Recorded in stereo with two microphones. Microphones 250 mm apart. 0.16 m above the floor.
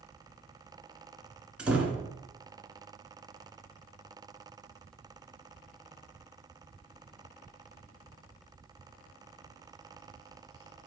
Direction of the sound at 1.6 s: 5° right (ahead or behind).